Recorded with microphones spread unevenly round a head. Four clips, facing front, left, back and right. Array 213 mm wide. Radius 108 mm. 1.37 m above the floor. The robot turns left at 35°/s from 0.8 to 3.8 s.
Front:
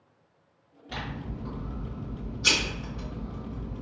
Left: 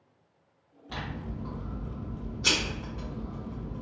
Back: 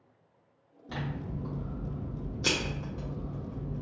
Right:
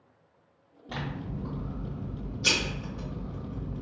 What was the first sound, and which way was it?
Scissors, 130° right.